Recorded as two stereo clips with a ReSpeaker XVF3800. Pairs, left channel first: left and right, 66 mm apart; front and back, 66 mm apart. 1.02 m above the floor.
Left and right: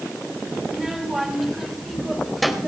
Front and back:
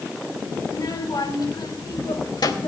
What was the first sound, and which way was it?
A child speaking, 5° right.